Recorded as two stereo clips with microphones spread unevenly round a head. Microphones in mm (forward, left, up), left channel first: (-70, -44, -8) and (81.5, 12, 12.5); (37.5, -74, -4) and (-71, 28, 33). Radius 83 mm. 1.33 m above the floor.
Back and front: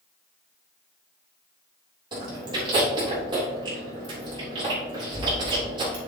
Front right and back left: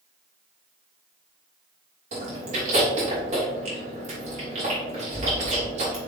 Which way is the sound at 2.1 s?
85° left.